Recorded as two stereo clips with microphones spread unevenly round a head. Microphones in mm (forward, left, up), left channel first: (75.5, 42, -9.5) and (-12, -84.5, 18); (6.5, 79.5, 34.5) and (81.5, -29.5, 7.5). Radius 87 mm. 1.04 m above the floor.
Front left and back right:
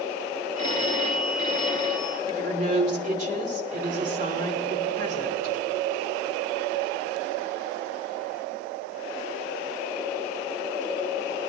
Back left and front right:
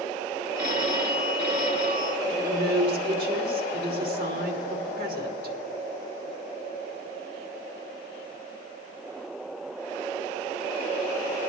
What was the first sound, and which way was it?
A phone ringing, 85° right.